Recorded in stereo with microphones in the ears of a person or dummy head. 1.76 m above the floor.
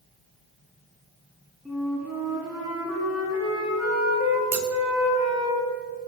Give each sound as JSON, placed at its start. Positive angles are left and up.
{"t": 1.6, "sound": "a flute", "side_deg": -5, "distance_m": 4.5}
{"t": 4.5, "sound": "scissors", "side_deg": -10, "distance_m": 1.0}